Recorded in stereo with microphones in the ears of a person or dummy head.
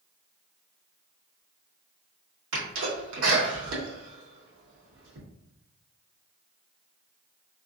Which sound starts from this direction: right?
A sneeze, at 2.5 s.